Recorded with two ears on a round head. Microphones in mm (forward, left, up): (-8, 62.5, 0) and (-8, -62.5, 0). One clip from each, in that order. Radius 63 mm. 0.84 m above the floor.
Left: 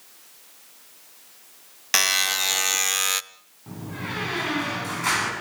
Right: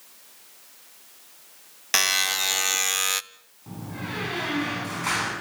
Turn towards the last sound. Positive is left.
turn(degrees=15)  # may be behind; listen again after turning